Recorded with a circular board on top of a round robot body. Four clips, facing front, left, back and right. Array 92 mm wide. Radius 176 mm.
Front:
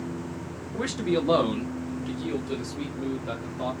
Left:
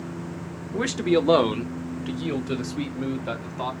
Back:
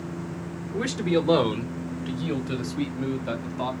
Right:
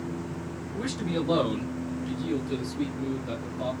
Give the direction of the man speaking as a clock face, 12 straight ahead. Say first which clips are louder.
Left 9 dB, back 2 dB; 9 o'clock.